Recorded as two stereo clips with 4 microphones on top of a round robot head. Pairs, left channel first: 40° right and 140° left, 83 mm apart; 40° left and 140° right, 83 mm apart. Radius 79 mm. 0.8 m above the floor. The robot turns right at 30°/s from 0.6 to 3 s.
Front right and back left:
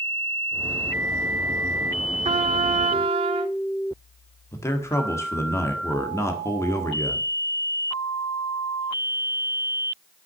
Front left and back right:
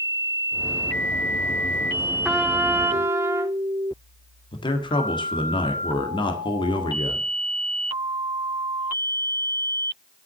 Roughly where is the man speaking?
Ahead.